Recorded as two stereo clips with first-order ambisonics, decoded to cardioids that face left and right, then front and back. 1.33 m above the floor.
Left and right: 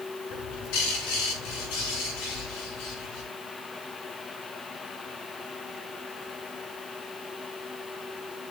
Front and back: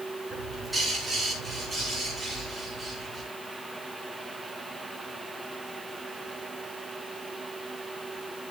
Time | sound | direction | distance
0.3 | a bird | 90° left | 4.5 m